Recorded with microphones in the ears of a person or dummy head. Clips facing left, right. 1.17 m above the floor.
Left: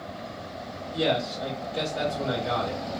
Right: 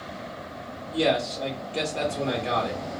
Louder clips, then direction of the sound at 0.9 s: Right 2 dB; 35° right (ahead or behind).